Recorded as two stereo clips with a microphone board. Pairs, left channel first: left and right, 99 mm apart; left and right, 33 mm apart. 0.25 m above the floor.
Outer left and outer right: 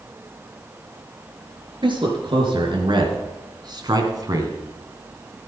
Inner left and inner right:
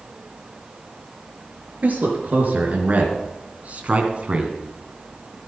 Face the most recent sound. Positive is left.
turn(degrees=-40)  # may be behind; listen again after turning